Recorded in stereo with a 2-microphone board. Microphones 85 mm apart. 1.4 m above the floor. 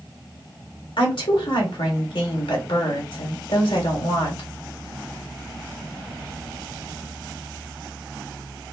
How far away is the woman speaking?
About 1.4 m.